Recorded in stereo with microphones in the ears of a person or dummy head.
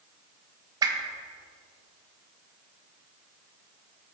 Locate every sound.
0.8 s a whoosh: 20° right (ahead or behind), 1.4 m